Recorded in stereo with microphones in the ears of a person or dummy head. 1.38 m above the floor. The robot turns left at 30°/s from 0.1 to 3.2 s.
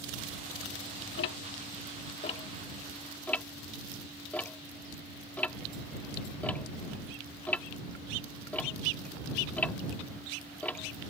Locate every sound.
1.2 s ticking: 65° left (ahead or behind); by 11.1 s 10° left (ahead or behind)